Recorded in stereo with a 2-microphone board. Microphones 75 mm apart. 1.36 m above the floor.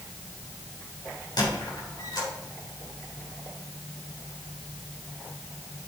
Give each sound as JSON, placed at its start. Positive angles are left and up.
{"t": 1.4, "sound": "a squeak", "side_deg": 70, "distance_m": 3.5}